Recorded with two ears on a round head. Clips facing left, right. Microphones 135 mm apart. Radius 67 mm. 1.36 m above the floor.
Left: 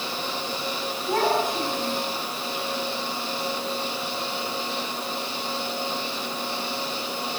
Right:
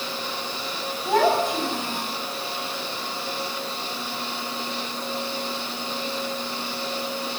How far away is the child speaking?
About 6.5 m.